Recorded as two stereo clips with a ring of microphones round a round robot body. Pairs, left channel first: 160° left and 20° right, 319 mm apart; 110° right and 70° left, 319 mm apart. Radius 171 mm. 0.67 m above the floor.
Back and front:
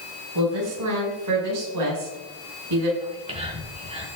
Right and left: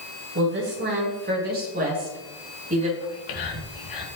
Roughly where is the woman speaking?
Ahead.